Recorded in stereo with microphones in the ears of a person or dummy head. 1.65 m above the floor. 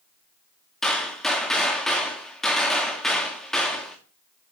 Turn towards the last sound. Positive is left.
turn(degrees=0)  # may be behind; listen again after turning